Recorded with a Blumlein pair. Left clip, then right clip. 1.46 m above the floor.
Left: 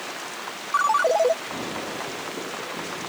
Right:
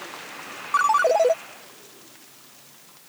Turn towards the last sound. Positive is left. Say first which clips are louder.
# right 1 dB
turn(degrees=-5)